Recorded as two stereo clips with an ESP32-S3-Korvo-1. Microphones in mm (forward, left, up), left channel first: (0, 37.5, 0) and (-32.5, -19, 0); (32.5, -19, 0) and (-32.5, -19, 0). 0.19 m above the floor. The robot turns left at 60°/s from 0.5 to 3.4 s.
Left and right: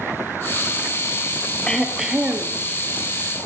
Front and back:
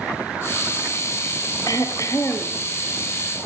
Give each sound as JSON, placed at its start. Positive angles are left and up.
{"t": 1.7, "sound": "throat clearing", "azimuth_deg": -15, "distance_m": 3.0}